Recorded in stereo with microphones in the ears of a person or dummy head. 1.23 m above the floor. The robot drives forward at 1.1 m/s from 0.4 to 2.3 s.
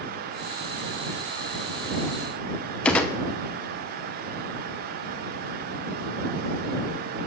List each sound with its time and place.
2.9 s a gunshot: 5° left (ahead or behind), 0.8 m